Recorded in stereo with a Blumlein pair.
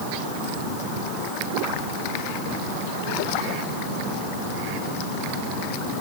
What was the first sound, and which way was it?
Only background noise.